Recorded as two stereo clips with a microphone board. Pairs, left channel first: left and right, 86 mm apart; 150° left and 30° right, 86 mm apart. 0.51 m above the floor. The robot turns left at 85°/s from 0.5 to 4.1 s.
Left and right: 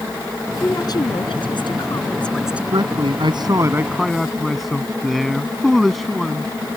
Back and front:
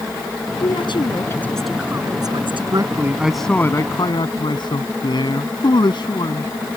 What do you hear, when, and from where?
0.6 s a woman speaking: 150° left; by 2.6 s 20° right
2.7 s a man speaking: 65° right; by 6.5 s straight behind